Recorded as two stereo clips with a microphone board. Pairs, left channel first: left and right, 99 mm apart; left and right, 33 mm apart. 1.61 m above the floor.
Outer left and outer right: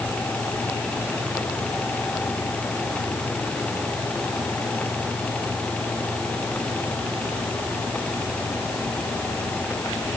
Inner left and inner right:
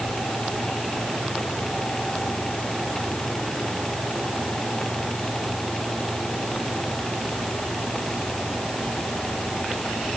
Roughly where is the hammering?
I don't hear hammering.